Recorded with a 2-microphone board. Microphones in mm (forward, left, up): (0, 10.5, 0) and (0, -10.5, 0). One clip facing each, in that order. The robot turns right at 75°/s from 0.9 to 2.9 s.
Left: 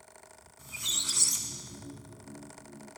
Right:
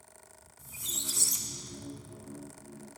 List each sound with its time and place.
0.6 s a squeak: 130° left, 0.7 m; by 2.5 s 105° right, 0.7 m